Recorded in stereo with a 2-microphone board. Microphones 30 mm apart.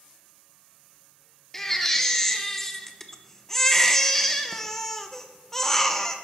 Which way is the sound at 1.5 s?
10° left (ahead or behind).